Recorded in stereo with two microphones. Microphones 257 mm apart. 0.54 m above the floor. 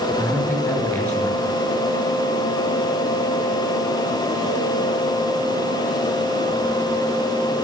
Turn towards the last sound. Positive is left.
turn(degrees=5)  # may be behind; listen again after turning